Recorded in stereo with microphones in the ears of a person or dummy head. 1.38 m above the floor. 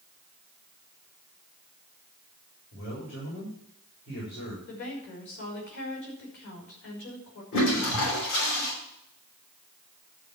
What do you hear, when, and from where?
2.7 s a man speaking: 75° left (ahead or behind), 7 m
4.7 s a woman speaking: 60° left (ahead or behind), 4.5 m
7.5 s a toilet flushing: 65° left (ahead or behind), 5.5 m